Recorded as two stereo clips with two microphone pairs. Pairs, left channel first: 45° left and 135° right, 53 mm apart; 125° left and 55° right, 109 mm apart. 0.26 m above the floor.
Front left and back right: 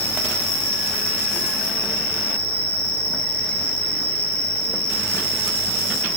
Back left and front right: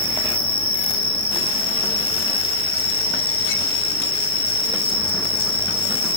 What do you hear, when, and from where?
0.0 s an insect: 70° left, 1.9 m